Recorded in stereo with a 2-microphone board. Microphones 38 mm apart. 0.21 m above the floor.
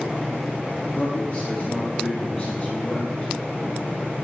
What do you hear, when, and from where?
0.9 s a man speaking: 30° left (ahead or behind), 4 m